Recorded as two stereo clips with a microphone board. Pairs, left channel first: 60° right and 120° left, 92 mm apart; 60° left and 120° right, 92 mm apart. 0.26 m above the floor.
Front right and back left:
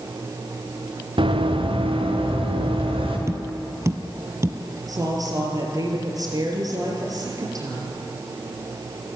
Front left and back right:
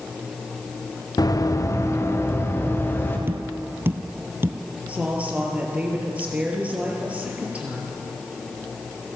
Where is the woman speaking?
165° left, 5 m.